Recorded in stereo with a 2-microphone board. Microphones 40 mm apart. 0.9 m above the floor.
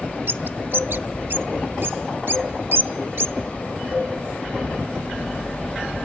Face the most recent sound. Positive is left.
turn(degrees=-60)  # may be behind; listen again after turning